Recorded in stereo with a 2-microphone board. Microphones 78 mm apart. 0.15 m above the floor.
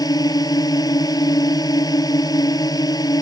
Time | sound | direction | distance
0.0 | a drone | 55° left (ahead or behind) | ?